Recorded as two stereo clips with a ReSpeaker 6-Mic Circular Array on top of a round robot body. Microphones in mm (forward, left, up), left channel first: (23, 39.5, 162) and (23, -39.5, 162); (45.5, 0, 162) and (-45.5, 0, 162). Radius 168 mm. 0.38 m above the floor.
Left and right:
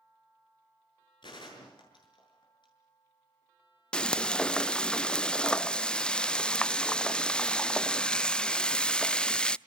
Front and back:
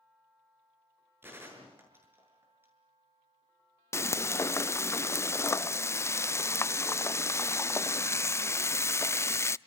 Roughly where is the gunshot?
Behind left.